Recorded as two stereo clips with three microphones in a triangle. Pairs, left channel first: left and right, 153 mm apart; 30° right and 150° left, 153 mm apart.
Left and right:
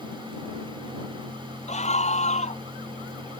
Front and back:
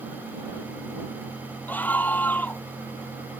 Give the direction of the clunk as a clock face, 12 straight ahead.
No clunk in this recording.